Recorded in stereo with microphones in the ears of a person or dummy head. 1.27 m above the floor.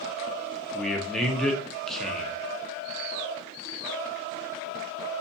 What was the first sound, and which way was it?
A man speaking, 5° left (ahead or behind).